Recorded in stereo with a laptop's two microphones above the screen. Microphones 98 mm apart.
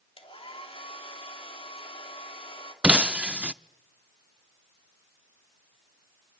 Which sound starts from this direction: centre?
Breaking glass, at 2.8 s.